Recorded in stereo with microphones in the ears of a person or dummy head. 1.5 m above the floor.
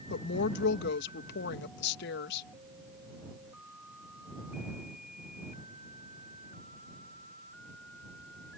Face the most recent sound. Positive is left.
turn(degrees=60)  # may be behind; listen again after turning